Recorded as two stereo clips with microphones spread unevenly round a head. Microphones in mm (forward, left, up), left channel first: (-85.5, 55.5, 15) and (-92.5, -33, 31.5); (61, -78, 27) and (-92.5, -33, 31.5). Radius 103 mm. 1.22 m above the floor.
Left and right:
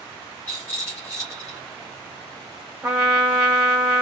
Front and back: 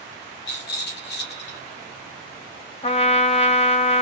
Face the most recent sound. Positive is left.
turn(degrees=-35)